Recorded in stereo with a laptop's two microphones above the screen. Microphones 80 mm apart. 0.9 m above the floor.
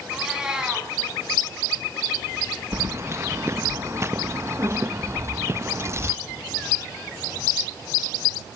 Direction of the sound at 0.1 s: 10° right (ahead or behind).